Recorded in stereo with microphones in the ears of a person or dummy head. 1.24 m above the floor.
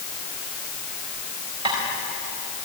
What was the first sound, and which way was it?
Tapping, 25° right (ahead or behind).